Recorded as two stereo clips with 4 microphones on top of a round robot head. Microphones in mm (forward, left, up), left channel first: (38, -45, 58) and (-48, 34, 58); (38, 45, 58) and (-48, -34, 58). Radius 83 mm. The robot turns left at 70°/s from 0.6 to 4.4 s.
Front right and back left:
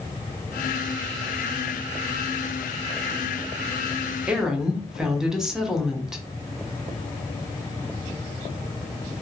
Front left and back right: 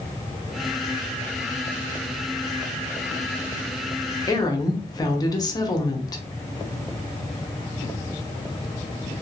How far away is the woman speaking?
About 1.1 m.